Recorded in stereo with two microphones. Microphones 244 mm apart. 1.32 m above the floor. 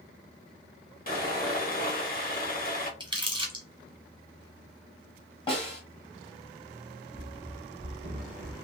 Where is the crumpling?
20° right (ahead or behind), 1.2 m.